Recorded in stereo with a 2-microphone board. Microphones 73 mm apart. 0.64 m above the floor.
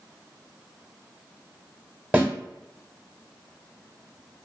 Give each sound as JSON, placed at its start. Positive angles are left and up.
{"t": 2.1, "sound": "a snare drum", "side_deg": -15, "distance_m": 1.0}